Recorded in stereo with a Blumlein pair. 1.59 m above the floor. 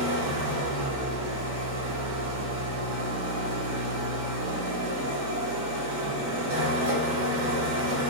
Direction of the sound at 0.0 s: 55° right.